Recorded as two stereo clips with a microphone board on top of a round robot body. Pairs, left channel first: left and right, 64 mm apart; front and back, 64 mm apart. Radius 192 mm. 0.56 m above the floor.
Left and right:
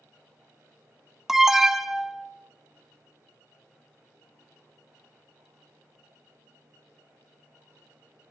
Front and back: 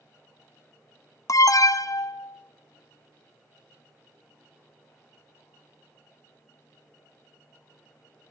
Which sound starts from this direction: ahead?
An alarm, at 1.3 s.